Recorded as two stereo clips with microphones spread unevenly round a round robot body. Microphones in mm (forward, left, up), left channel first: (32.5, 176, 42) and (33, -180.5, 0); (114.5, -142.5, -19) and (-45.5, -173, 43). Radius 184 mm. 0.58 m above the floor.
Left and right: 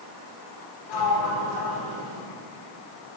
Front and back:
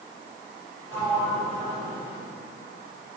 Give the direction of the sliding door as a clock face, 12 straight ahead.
9 o'clock.